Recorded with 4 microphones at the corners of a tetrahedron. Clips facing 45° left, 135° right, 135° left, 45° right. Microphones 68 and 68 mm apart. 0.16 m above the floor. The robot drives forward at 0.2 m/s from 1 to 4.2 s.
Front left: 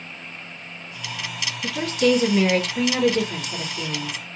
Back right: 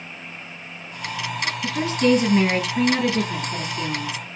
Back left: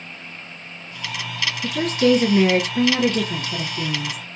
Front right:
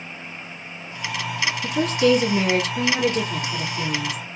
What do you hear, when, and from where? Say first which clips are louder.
1.6 s a woman speaking: even, back left 1 dB; 145° left, 1.9 m; by 4.2 s 155° left, 2.5 m